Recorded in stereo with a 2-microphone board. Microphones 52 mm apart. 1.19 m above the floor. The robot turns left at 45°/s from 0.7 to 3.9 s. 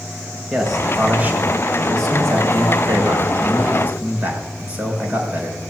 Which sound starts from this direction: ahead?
A man speaking, at 0.5 s.